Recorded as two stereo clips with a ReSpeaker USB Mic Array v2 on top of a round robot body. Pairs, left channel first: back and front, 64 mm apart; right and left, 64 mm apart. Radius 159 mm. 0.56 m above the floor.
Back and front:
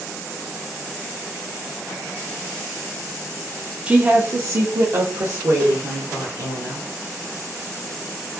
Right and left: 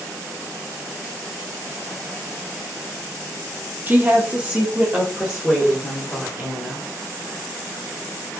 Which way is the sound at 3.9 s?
55° left.